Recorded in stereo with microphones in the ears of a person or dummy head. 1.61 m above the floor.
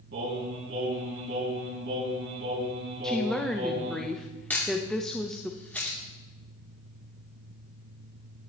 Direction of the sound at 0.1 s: 60° right (ahead or behind).